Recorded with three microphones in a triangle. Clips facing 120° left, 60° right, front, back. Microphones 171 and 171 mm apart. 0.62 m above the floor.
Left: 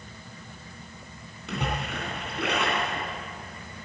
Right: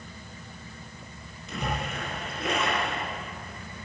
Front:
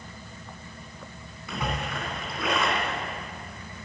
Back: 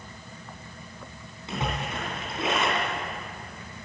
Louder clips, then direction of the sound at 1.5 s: Left 1 dB, even; 115° left.